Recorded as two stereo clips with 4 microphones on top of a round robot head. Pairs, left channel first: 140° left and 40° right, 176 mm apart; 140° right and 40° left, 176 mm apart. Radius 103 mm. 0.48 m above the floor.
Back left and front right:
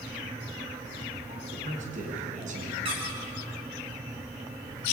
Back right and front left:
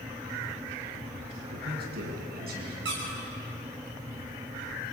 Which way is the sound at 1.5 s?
5° left.